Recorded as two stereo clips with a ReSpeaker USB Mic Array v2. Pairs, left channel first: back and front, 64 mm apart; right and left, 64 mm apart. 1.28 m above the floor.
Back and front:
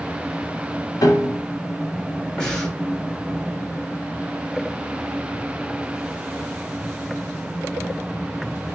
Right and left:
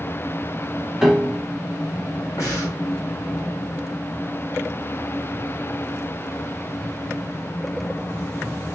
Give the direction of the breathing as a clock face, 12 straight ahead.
3 o'clock.